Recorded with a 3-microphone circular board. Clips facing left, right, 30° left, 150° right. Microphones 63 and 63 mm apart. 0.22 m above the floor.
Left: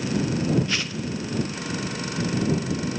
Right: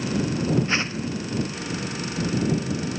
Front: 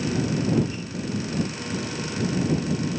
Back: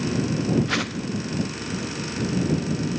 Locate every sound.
0.7 s a whoosh: 150° right